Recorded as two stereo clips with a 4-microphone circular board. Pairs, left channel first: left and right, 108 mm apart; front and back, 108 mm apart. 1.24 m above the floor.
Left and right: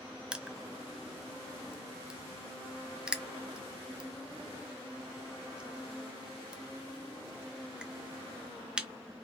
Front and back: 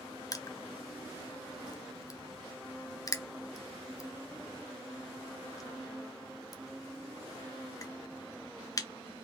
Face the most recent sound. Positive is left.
turn(degrees=-15)